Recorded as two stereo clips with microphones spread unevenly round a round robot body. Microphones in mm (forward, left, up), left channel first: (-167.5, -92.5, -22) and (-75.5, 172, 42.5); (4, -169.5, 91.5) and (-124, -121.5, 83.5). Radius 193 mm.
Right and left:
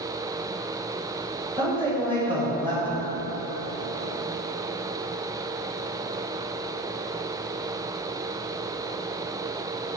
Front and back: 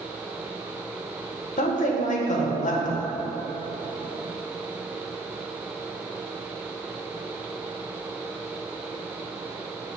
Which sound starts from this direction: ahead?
A woman speaking, at 1.6 s.